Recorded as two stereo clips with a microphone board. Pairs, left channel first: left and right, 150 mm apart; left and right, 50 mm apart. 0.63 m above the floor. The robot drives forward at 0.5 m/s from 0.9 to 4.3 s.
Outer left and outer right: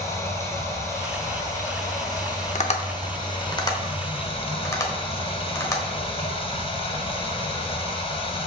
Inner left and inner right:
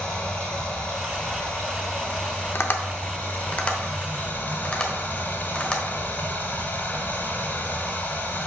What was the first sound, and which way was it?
Running water, 20° left (ahead or behind).